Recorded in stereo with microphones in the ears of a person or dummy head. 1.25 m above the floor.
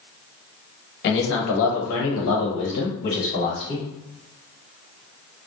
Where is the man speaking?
60° left (ahead or behind), 1.2 m; by 3.9 s 30° left (ahead or behind), 1.5 m.